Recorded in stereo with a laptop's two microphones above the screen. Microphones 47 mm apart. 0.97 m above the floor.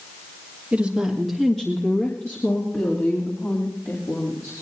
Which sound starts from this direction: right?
A woman speaking, at 0.7 s.